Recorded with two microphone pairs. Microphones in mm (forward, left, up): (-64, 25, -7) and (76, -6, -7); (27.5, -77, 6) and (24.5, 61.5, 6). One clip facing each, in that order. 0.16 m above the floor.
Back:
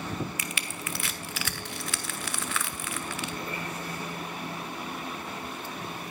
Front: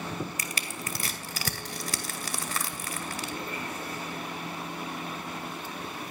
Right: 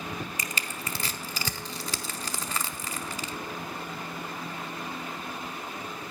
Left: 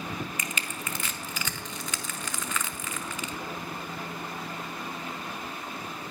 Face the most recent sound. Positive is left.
turn(degrees=-45)